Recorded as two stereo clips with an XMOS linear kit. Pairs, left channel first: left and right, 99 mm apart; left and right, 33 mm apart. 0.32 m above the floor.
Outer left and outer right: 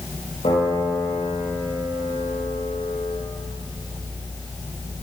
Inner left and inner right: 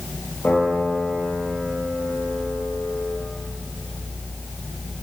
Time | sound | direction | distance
0.4 | a piano | 80° left | 9 m